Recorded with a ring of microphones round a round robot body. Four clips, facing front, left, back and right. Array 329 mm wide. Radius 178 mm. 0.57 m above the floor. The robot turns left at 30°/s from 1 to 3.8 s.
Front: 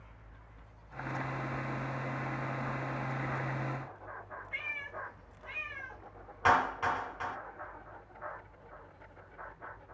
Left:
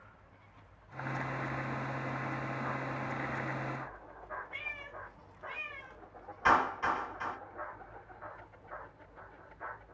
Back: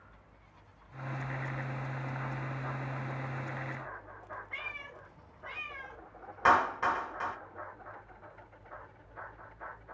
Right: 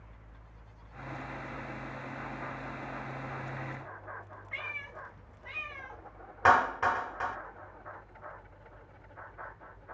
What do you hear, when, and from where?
4.5 s a cat meowing: 95° right, 3 m
6.5 s a clap: 105° right, 2.5 m